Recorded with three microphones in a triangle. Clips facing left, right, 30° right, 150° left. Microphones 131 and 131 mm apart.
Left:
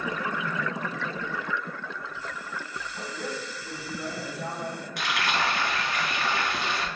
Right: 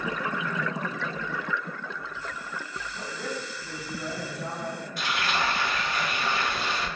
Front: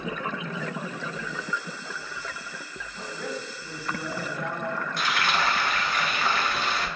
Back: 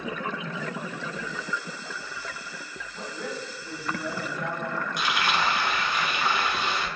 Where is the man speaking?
90° left, 1.7 m; by 4.9 s 30° left, 1.8 m.